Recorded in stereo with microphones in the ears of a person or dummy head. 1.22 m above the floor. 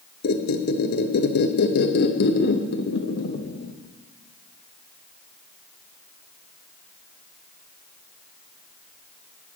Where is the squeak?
60° left (ahead or behind), 0.8 m.